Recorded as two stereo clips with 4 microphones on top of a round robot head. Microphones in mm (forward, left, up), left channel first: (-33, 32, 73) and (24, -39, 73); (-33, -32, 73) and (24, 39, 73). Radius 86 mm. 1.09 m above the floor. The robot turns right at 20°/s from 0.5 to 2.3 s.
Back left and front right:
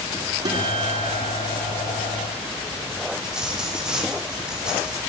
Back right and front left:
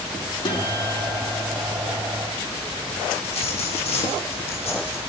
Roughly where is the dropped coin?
Behind right.